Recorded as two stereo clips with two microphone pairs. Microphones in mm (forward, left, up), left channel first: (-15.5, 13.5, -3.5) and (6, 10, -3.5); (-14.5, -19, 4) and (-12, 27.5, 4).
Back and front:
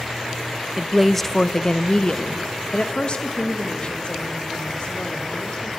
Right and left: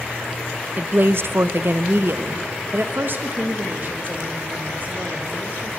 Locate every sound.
0.8 s a woman speaking: 60° left, 0.5 m; by 5.7 s 135° left, 3.5 m